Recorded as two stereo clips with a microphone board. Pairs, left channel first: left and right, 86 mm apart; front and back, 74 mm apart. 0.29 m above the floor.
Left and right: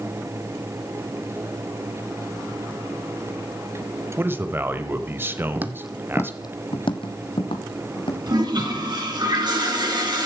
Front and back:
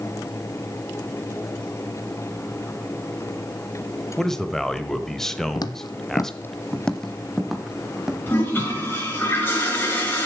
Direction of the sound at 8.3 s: 60° right.